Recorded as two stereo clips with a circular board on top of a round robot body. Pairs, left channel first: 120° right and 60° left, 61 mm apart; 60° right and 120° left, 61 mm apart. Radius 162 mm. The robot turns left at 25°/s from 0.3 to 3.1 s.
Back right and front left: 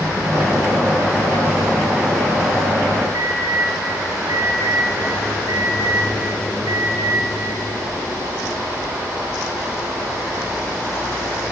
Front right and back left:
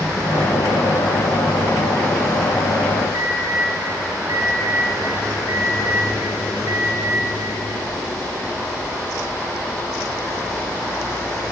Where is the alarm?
85° left, 9 m.